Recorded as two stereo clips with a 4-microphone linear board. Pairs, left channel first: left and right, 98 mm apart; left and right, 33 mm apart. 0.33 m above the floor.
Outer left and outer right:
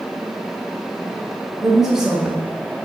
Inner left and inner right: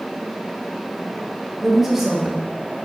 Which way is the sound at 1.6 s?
5° right (ahead or behind).